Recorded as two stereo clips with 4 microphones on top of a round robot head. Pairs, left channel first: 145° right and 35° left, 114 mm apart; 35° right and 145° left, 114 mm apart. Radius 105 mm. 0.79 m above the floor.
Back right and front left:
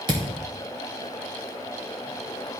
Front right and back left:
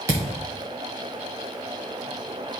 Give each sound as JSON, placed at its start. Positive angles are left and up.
{"t": 0.1, "sound": "a thud", "azimuth_deg": 80, "distance_m": 0.6}